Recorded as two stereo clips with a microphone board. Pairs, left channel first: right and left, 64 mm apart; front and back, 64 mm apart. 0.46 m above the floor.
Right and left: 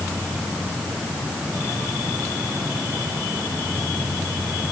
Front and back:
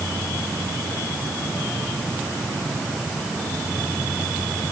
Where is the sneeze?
No sneeze in this recording.